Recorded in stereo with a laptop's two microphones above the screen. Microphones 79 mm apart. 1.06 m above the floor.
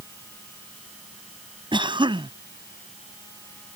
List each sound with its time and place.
1.7 s a cough: 85° right